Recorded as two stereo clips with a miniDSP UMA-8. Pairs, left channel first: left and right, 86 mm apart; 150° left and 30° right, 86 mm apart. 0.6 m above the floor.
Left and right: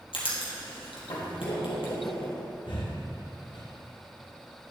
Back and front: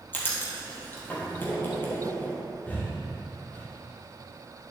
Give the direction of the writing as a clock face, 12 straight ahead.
9 o'clock.